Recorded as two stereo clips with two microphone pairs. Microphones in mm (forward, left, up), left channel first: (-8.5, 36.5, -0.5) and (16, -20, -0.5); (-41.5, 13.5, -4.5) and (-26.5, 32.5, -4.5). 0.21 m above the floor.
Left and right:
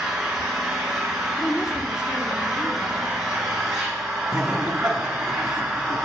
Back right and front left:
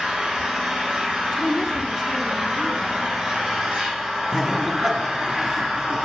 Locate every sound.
0.0 s an engine running: 10° left, 4.5 m
1.4 s a woman speaking: 135° left, 2 m
4.3 s laughter: straight ahead, 1.8 m